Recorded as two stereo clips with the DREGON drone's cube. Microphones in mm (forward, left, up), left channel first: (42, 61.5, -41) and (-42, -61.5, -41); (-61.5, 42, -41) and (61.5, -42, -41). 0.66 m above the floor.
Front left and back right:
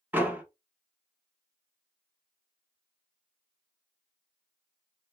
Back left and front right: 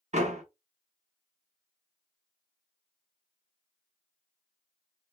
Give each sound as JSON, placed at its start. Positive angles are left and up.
{"t": 0.1, "sound": "a door slam", "azimuth_deg": -50, "distance_m": 0.7}